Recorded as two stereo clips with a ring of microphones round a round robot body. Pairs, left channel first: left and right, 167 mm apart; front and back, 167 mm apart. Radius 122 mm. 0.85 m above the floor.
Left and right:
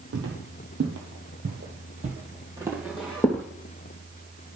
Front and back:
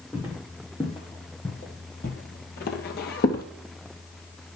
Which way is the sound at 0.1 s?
90° right.